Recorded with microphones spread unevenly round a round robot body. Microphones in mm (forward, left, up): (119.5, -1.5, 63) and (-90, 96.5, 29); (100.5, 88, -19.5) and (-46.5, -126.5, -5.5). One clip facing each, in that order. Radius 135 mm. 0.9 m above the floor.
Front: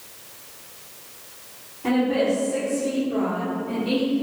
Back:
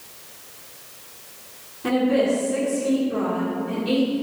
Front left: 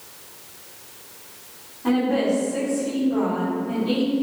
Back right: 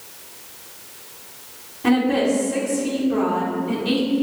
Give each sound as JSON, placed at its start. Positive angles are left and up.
{"t": 1.8, "sound": "a woman speaking", "azimuth_deg": -130, "distance_m": 2.5}